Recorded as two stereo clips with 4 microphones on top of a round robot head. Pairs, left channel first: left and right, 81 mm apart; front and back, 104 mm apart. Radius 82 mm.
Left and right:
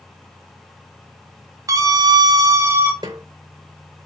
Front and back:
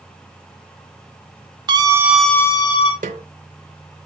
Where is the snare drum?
150° right, 0.7 m.